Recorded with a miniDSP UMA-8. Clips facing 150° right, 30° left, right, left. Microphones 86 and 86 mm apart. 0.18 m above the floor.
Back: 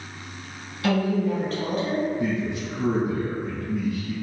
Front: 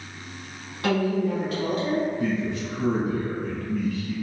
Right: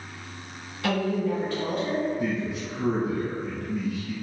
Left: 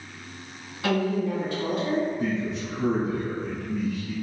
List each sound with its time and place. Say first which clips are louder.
0.8 s a woman speaking: even, left 1 dB; 35° left, 1.7 m; by 2.1 s 165° left, 1.5 m
2.2 s a man speaking: even, left 1 dB; 160° right, 1.7 m